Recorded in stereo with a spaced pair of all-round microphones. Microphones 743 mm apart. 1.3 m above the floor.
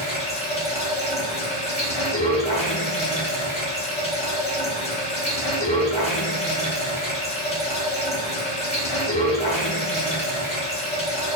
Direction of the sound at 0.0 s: 10° left (ahead or behind).